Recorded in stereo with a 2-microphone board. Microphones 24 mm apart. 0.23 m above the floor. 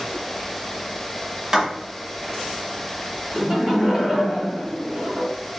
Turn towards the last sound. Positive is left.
turn(degrees=-30)  # may be behind; listen again after turning